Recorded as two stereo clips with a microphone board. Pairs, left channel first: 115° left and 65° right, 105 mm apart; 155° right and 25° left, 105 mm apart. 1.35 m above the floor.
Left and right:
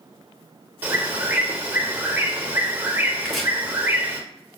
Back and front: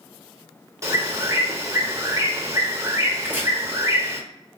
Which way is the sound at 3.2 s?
25° left.